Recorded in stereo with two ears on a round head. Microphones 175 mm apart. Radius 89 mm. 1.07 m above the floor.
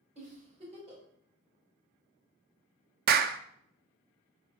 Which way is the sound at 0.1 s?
35° right (ahead or behind).